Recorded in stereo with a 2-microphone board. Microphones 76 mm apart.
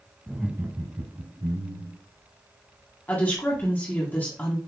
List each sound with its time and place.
0.3 s laughter: 5° right (ahead or behind), 1.0 m; by 2.0 s 55° right (ahead or behind), 2.0 m
3.1 s a woman speaking: 25° left (ahead or behind), 1.5 m